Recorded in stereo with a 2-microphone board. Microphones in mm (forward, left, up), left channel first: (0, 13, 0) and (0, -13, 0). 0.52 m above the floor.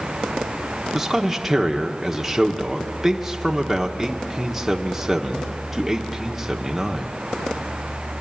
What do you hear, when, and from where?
0.9 s a man speaking: 10° right (ahead or behind), 1.1 m